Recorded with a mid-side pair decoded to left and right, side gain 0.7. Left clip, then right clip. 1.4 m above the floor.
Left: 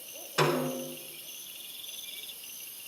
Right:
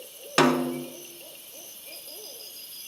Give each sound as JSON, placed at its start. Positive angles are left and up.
{"t": 0.4, "sound": "a snare drum", "azimuth_deg": -55, "distance_m": 1.7}